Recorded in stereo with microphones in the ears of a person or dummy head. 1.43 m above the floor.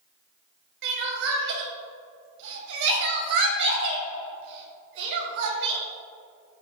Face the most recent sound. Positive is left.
turn(degrees=-60)  # may be behind; listen again after turning